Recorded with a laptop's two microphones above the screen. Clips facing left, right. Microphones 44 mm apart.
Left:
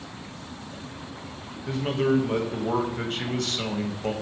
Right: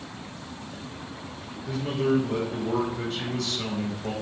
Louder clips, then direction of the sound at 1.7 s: Left 1 dB; 45° left (ahead or behind).